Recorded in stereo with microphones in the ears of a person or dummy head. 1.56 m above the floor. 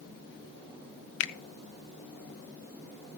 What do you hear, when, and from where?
1.2 s a finger snap: 70° left (ahead or behind), 0.6 m